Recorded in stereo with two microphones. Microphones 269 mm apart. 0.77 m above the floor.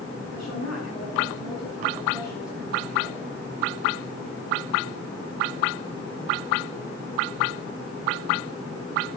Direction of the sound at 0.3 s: 75° left (ahead or behind).